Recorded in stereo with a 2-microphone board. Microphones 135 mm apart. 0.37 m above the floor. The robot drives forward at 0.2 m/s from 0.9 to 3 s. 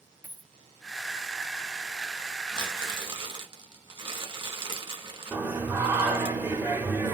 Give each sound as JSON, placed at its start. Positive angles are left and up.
{"t": 0.2, "sound": "a dropped coin", "side_deg": -10, "distance_m": 0.9}
{"t": 2.5, "sound": "crumpling", "side_deg": -35, "distance_m": 1.9}
{"t": 5.3, "sound": "singing", "side_deg": -15, "distance_m": 1.2}